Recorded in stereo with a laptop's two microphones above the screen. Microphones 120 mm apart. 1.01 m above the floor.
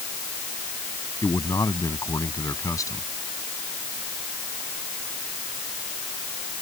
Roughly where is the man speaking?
Left.